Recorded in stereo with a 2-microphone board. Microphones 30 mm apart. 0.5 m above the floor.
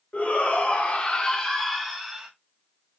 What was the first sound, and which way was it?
A shout, 45° left (ahead or behind).